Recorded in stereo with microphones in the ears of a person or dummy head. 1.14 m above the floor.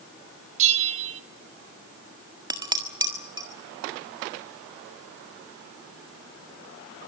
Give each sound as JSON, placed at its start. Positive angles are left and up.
{"t": 0.6, "sound": "a bell", "side_deg": -40, "distance_m": 1.8}
{"t": 2.5, "sound": "dishes clattering", "side_deg": -20, "distance_m": 1.5}